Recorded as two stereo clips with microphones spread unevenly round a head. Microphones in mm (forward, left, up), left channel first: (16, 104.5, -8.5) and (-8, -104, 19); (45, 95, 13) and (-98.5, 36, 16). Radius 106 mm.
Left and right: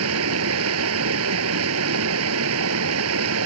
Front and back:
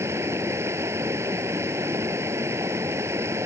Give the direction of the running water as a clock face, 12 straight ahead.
3 o'clock.